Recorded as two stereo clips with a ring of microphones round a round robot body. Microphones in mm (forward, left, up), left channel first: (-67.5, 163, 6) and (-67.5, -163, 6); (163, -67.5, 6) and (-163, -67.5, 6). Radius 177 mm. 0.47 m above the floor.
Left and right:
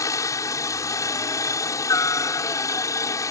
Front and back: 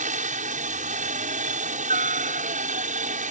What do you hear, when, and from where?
0.0 s a helicopter: 155° left